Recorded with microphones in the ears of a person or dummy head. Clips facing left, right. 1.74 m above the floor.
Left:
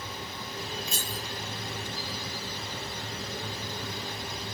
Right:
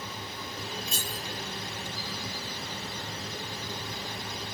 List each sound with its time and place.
0.9 s keys jangling: centre (ahead or behind), 8.5 m